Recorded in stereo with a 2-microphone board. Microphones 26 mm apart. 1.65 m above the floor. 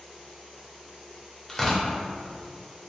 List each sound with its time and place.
1.5 s tearing paper: 10° left (ahead or behind), 0.6 m